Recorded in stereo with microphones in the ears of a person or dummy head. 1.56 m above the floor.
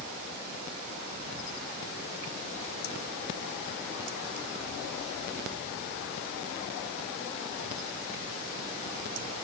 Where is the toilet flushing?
No toilet flushing in this recording.